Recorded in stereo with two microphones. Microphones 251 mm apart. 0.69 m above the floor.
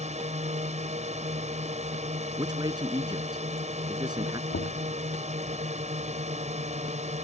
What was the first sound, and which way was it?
A drone, 30° right (ahead or behind).